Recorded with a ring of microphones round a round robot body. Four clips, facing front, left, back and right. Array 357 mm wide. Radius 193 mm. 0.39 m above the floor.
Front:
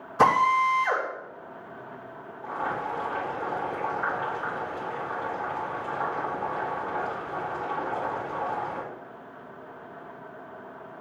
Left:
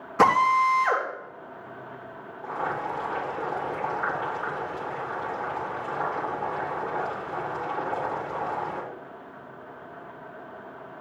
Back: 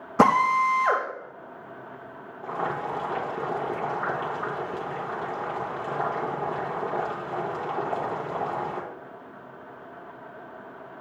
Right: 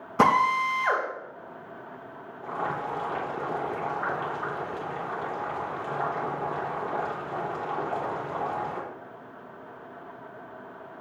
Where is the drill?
165° right, 5 m.